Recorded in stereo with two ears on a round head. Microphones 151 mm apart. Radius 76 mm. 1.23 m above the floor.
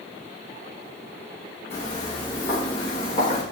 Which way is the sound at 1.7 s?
25° left (ahead or behind).